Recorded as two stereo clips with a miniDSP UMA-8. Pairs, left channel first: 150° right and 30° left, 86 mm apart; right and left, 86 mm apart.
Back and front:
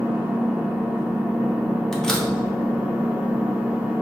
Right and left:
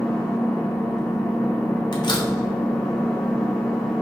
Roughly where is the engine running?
Ahead.